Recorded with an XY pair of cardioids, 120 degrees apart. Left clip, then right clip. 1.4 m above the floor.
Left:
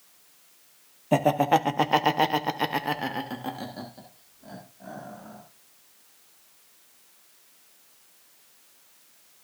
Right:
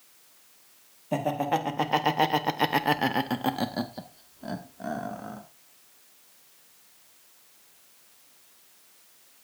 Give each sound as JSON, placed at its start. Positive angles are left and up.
{"t": 1.1, "sound": "laughter", "azimuth_deg": 45, "distance_m": 1.5}